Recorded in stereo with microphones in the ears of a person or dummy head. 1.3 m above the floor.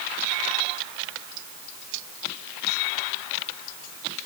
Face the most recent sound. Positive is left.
No sound to turn to.